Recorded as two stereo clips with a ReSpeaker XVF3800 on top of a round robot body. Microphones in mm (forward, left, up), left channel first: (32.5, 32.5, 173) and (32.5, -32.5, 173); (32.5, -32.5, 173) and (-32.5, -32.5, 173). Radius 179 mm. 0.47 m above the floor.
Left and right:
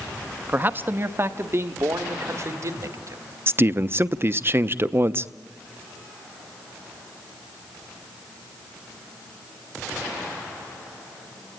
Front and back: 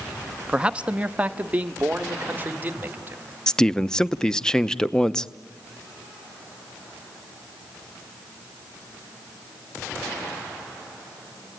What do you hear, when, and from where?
0.5 s a man speaking: 120° right, 1.2 m
3.5 s a man speaking: 75° right, 1.0 m